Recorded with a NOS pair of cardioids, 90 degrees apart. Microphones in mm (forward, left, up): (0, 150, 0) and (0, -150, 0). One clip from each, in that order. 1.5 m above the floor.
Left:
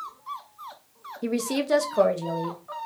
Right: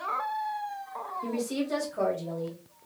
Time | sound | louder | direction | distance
1.2 | a woman speaking | left 8 dB | 55° left | 0.7 m